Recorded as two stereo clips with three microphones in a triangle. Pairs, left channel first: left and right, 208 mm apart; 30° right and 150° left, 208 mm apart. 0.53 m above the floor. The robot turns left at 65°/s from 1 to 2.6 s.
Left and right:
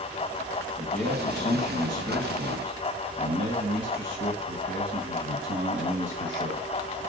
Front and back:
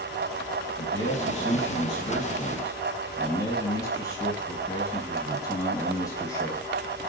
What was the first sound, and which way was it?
A man speaking, straight ahead.